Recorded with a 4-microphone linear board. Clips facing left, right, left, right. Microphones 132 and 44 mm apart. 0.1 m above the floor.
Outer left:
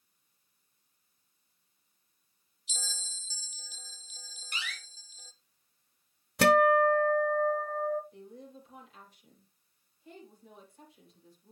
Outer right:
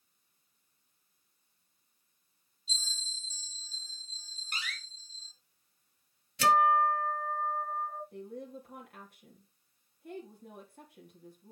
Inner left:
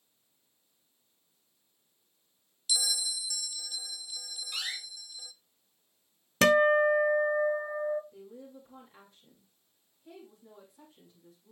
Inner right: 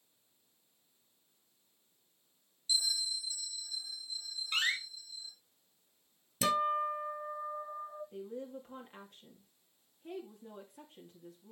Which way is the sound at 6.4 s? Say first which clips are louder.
Outer left 3 dB, inner left 9 dB; 60° left (ahead or behind).